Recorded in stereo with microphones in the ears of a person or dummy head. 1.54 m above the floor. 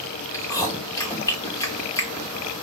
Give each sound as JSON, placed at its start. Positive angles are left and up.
{"t": 0.3, "sound": "chewing", "side_deg": 15, "distance_m": 0.9}